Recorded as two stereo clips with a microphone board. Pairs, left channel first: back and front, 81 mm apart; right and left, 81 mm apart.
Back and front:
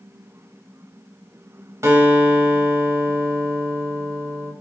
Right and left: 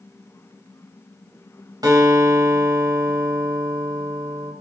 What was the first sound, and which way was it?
A guitar, 55° left.